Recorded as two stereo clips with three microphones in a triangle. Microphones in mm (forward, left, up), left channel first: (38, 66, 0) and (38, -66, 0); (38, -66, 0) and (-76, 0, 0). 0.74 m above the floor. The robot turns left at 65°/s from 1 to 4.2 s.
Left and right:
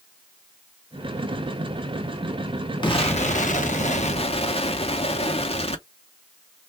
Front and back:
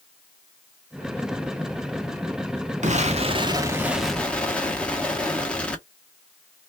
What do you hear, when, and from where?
2.8 s an explosion: 140° left, 0.8 m; by 5.8 s 50° left, 0.8 m